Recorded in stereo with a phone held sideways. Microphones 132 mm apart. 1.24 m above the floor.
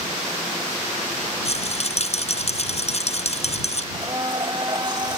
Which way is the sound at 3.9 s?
35° right (ahead or behind).